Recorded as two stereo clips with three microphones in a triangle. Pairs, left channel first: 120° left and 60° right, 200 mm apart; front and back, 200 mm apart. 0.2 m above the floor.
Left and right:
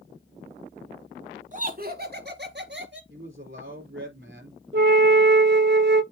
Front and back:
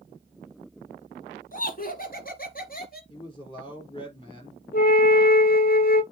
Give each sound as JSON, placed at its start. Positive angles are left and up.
{"t": 1.5, "sound": "laughter", "azimuth_deg": -25, "distance_m": 1.6}
{"t": 3.1, "sound": "a man speaking", "azimuth_deg": -65, "distance_m": 4.5}
{"t": 4.7, "sound": "a flute", "azimuth_deg": -35, "distance_m": 0.5}